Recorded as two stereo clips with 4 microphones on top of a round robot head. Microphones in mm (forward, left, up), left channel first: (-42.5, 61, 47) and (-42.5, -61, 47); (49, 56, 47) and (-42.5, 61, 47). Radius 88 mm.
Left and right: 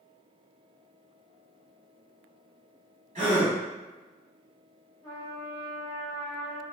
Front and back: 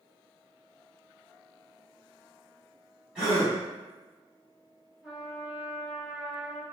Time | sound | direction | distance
3.1 | a gasp | 100° right | 1.3 m
5.0 | a trumpet | 110° left | 0.6 m